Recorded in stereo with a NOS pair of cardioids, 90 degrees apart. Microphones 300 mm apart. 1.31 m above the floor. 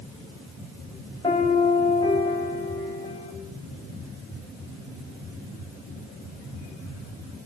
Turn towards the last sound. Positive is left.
turn(degrees=15)